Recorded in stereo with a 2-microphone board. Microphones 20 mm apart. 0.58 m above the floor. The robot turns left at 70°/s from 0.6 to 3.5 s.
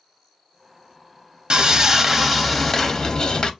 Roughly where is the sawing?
Behind right.